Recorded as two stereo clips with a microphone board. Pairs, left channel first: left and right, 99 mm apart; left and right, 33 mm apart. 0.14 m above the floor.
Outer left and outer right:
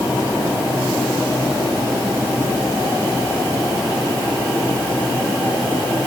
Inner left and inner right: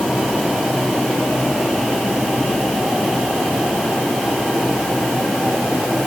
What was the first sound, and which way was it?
Only background noise.